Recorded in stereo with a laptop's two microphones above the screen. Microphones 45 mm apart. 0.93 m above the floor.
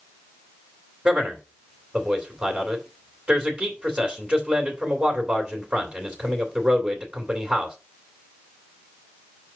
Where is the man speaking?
25° right (ahead or behind), 2.5 m.